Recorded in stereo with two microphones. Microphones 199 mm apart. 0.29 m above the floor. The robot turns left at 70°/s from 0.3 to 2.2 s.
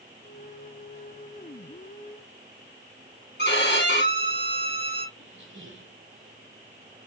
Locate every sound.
3.4 s a violin: 60° left (ahead or behind), 2 m
5.2 s a squeak: 70° right (ahead or behind), 2 m